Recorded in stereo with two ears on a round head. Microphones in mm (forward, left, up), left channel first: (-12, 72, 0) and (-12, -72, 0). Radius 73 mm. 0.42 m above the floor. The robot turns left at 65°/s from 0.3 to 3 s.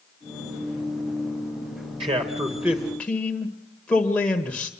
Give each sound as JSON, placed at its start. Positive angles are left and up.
{"t": 2.0, "sound": "a man speaking", "azimuth_deg": -125, "distance_m": 1.5}